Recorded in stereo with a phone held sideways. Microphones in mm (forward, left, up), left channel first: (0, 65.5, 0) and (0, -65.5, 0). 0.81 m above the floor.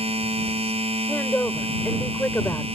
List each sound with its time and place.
0.0 s a machine running: 50° right (ahead or behind)
1.1 s a woman speaking: 15° left (ahead or behind)